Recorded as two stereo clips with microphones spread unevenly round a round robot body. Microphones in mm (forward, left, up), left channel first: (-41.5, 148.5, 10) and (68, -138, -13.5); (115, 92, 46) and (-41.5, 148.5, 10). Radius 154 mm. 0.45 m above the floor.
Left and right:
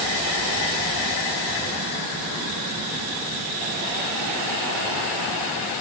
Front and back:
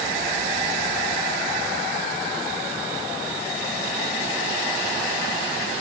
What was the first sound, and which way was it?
Only background noise.